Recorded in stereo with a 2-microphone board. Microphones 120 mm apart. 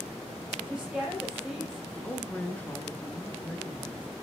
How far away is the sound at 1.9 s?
About 1.1 m.